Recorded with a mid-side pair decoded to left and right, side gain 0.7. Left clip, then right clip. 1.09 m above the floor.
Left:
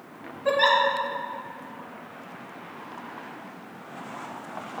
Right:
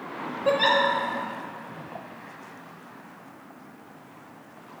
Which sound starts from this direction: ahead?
A giggle, at 0.5 s.